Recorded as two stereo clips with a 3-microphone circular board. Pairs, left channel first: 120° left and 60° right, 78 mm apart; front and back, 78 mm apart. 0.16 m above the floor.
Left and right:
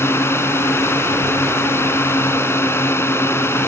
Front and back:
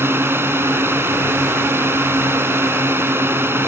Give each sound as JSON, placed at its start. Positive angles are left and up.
{"t": 0.0, "sound": "a drone", "azimuth_deg": 145}